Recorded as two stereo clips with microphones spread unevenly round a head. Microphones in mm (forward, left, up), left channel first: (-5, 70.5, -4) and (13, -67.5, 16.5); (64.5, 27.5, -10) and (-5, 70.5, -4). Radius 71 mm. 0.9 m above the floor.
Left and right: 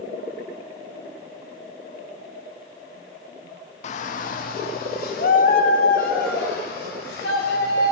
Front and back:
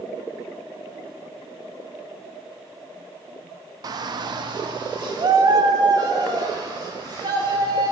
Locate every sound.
3.8 s a shout: 115° left, 0.8 m